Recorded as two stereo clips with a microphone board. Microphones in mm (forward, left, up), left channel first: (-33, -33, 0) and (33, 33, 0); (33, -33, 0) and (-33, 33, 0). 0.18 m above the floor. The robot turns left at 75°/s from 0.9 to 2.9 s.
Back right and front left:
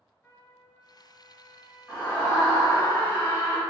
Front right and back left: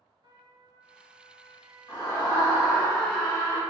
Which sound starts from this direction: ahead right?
A scream, at 1.9 s.